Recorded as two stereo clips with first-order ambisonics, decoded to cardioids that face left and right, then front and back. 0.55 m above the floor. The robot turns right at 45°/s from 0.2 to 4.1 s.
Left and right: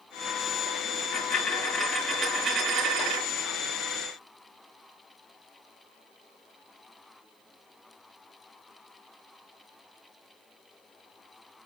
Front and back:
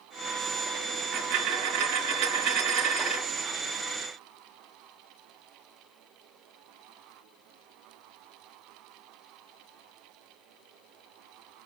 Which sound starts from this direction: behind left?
A dropped coin, at 0.9 s.